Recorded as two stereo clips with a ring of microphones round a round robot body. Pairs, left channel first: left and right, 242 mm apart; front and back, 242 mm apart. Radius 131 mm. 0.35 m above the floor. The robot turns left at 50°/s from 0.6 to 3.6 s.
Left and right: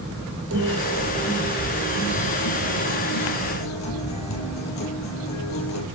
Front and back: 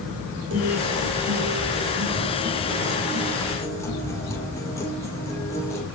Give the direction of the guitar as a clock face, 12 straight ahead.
4 o'clock.